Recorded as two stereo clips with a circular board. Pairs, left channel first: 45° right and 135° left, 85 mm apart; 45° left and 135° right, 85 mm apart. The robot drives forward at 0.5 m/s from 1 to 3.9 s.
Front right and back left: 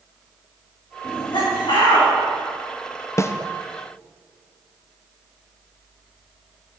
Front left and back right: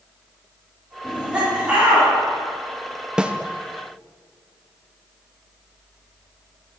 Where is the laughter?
55° right, 4 m; by 2.1 s 60° right, 4 m.